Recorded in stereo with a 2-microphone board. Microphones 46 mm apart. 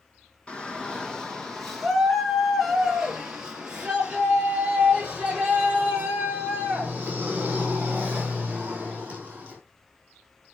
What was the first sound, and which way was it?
A shout, 25° left (ahead or behind).